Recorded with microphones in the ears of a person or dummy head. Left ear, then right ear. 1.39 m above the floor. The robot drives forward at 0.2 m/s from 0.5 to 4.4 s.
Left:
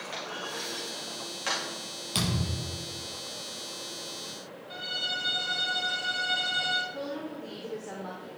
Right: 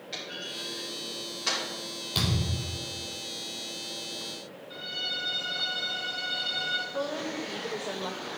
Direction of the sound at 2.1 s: 55° left (ahead or behind).